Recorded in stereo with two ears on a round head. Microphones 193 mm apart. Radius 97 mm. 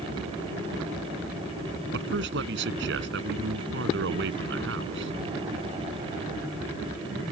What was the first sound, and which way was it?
A man speaking, 60° right (ahead or behind).